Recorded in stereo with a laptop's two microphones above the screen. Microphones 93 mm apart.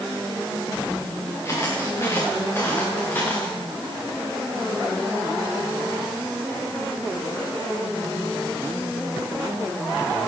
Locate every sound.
1.4 s footsteps: 30° left (ahead or behind), 6.5 m; by 3.6 s 20° left (ahead or behind), 7 m